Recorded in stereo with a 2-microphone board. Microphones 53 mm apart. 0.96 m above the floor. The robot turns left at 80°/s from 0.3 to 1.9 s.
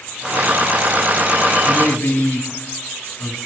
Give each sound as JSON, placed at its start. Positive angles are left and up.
{"t": 1.6, "sound": "a man speaking", "side_deg": 15, "distance_m": 8.5}